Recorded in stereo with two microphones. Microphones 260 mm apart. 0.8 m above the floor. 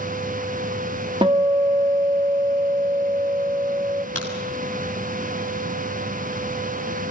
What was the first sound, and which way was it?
A guitar, 20° right (ahead or behind).